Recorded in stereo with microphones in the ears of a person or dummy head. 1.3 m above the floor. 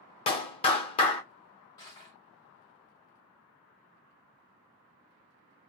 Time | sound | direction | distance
0.3 | a clap | 30° left (ahead or behind) | 0.7 m
1.8 | crushing | 20° left (ahead or behind) | 1.1 m